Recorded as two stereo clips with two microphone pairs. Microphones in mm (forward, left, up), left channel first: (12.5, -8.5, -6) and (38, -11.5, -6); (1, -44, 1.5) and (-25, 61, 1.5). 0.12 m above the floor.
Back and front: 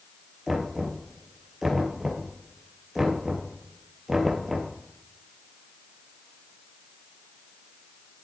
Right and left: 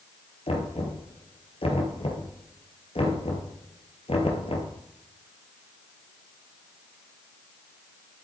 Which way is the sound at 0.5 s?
85° right.